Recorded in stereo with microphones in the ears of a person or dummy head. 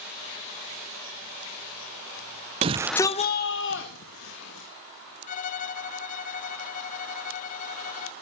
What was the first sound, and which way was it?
A shout, 35° right (ahead or behind).